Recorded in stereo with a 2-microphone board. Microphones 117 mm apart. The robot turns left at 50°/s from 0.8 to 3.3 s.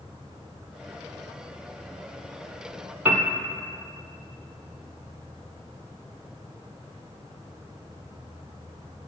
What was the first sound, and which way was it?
A piano, 15° right (ahead or behind).